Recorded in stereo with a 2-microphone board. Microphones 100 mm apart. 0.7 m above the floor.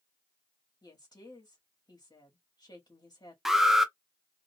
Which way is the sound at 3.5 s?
5° right (ahead or behind).